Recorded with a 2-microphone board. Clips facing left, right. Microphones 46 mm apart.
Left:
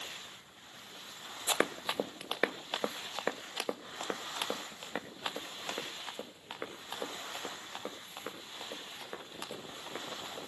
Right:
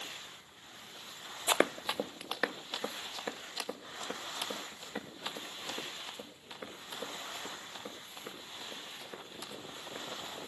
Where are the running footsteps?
25° right (ahead or behind), 0.6 m; by 10.4 s 55° left (ahead or behind), 9 m.